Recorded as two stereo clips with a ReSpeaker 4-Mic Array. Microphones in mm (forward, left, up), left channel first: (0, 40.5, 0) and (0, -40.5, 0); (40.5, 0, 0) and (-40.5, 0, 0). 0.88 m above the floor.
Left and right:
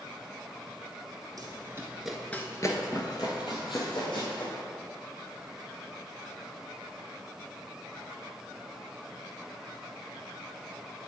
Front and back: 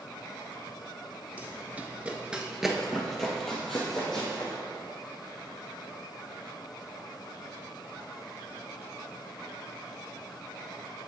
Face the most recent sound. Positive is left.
turn(degrees=80)